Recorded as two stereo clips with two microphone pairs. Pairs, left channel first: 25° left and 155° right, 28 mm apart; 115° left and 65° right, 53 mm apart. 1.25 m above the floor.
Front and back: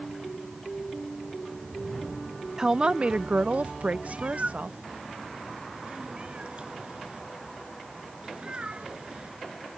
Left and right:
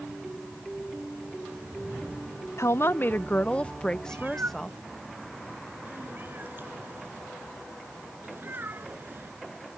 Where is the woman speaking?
140° left; by 4.8 s 155° right.